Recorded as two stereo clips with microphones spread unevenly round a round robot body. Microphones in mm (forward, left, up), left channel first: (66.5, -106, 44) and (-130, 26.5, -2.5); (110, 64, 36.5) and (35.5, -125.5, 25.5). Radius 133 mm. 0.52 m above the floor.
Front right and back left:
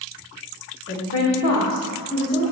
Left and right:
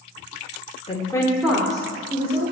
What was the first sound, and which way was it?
A woman speaking, 10° left.